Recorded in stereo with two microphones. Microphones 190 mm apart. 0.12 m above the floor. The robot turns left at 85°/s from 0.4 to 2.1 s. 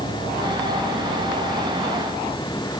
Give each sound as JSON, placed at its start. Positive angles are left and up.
{"t": 0.0, "sound": "an insect", "azimuth_deg": -45}